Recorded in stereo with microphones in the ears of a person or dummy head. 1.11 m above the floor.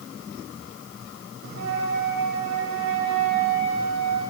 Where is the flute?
80° right, 5 m.